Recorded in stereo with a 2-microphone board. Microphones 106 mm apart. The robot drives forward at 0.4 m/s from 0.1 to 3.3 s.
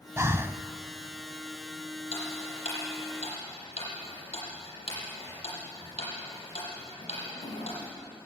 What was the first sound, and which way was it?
Breathing, 30° right (ahead or behind).